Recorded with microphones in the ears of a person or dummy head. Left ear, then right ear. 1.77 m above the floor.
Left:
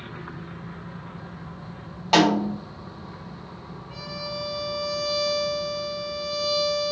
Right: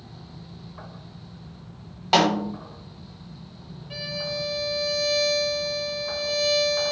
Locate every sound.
2.1 s a snare drum: centre (ahead or behind), 2 m
3.9 s a violin: 65° right (ahead or behind), 3.5 m